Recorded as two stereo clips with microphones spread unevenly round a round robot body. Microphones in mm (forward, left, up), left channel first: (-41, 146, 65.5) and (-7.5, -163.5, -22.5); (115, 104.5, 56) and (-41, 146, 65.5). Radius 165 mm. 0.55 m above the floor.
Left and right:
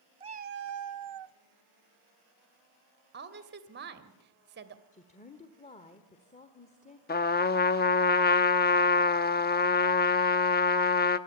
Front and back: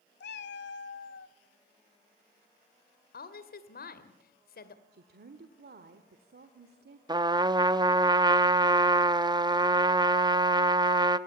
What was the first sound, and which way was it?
A cat meowing, 5° right.